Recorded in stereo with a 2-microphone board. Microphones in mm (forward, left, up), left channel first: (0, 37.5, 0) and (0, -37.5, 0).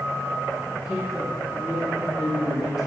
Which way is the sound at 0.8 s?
5° right (ahead or behind).